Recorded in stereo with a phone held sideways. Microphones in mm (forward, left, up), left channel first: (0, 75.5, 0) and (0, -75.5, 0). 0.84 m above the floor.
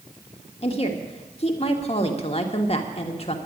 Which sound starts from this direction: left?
A woman speaking, at 0.6 s.